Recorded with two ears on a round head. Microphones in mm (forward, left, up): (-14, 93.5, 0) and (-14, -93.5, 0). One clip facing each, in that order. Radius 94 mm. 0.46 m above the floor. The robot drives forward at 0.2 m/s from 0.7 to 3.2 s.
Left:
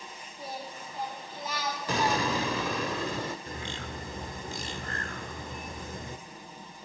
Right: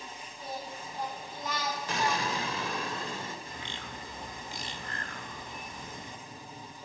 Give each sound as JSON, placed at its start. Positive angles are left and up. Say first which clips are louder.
{"t": 0.4, "sound": "singing", "louder": "even", "side_deg": 10, "distance_m": 8.5}
{"t": 1.9, "sound": "an explosion", "louder": "left 5 dB", "side_deg": 70, "distance_m": 0.8}
{"t": 3.5, "sound": "a bird", "louder": "left 4 dB", "side_deg": 40, "distance_m": 1.2}